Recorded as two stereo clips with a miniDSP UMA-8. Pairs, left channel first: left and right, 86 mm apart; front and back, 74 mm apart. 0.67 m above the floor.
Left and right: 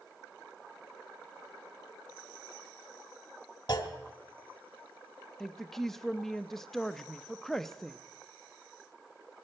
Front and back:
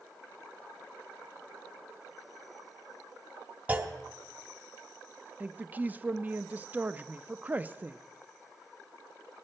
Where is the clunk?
110° left, 1.1 m.